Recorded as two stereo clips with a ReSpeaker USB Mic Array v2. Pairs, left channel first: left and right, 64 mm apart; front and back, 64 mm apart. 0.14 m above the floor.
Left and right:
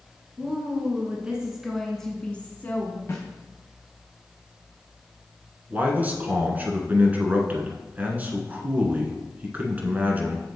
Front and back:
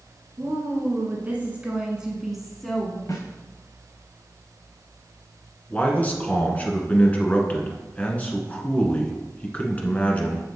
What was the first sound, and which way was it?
A woman speaking, 135° right.